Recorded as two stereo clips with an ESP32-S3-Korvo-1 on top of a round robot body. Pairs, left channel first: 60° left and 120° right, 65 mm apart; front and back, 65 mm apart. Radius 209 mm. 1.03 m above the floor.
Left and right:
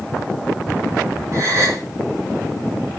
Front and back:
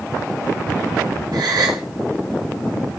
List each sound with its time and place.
1.3 s a gasp: 160° right, 0.9 m